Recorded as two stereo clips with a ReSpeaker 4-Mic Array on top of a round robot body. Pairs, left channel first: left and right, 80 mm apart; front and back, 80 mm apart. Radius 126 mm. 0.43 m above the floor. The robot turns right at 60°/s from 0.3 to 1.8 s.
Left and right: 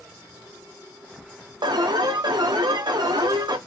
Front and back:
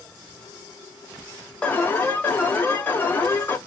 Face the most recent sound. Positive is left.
turn(degrees=-65)